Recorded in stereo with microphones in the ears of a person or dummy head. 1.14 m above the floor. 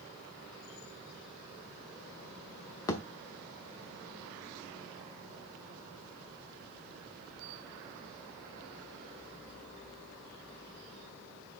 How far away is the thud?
About 0.8 m.